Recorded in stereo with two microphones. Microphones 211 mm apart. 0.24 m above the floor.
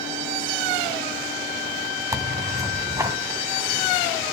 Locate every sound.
2.1 s tearing paper: 15° right (ahead or behind), 1.8 m